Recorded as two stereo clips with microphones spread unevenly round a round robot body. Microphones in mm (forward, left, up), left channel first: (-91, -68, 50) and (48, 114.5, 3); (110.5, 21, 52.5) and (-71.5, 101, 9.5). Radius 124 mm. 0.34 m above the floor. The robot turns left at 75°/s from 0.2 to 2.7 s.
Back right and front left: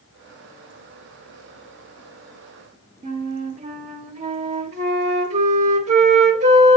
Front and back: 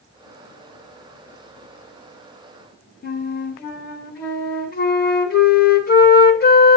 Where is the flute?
15° left, 0.9 m.